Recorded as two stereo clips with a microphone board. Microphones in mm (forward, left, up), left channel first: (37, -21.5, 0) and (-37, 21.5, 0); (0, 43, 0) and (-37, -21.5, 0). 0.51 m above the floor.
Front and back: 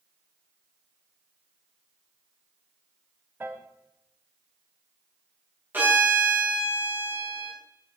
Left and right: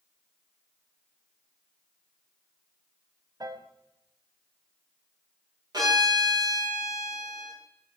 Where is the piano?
145° right, 0.6 m.